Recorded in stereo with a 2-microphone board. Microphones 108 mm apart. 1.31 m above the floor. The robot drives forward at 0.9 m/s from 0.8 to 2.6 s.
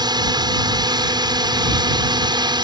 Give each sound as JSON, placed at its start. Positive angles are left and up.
{"t": 0.0, "sound": "a drone", "side_deg": -40}